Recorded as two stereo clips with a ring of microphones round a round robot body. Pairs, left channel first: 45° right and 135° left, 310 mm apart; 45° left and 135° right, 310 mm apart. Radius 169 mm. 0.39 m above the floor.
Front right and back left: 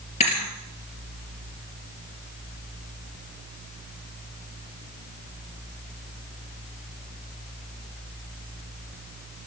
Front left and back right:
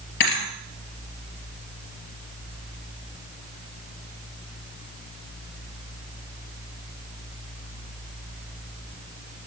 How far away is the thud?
About 3 m.